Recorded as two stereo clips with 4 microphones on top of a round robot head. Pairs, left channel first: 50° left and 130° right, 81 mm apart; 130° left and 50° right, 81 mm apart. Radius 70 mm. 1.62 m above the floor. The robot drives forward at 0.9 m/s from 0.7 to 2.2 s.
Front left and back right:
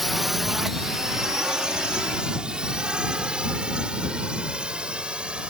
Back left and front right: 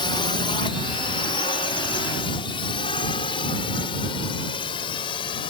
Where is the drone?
145° left; by 5.5 s 155° left.